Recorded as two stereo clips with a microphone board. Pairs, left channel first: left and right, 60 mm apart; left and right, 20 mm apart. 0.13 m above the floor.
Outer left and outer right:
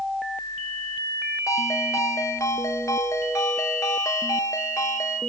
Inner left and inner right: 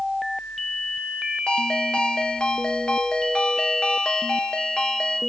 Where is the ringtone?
60° left (ahead or behind), 1.1 m.